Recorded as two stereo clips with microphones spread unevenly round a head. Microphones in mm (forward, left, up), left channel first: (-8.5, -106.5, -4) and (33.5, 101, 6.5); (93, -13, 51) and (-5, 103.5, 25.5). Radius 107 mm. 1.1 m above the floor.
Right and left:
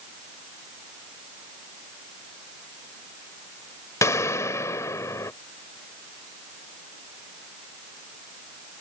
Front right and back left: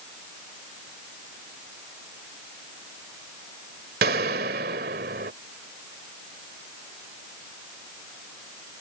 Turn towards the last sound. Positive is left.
turn(degrees=180)